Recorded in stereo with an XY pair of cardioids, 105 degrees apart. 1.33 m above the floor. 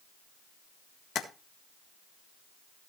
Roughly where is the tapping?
Ahead left.